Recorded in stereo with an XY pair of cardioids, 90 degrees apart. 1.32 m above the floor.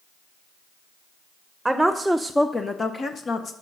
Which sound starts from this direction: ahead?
A woman speaking, at 1.6 s.